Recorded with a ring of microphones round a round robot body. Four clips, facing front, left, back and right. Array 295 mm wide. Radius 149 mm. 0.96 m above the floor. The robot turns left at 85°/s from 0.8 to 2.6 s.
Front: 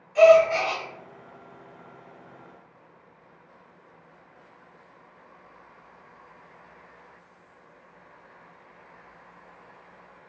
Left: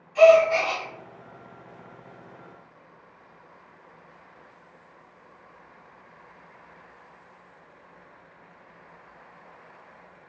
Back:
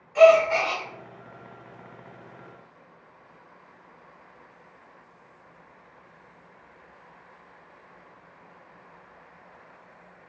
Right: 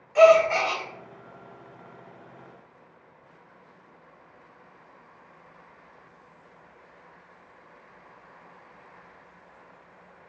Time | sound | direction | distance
0.1 | a gasp | 115° right | 1.0 m